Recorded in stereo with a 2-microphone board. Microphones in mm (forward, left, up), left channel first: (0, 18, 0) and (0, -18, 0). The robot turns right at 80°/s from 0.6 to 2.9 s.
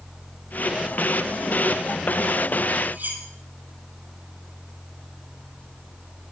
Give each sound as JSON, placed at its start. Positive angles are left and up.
{"t": 2.9, "sound": "cutlery clinking", "side_deg": -65, "distance_m": 8.0}